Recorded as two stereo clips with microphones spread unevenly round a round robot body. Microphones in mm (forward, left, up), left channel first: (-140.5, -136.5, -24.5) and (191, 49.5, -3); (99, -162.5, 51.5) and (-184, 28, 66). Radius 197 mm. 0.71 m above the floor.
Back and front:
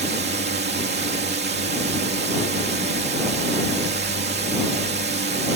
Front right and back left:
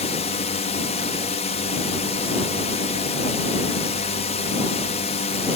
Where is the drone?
5° left.